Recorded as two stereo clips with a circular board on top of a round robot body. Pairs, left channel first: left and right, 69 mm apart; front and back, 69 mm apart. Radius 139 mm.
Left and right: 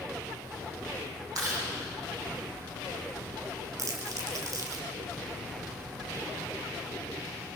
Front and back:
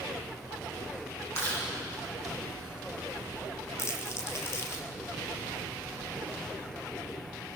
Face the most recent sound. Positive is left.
turn(degrees=-50)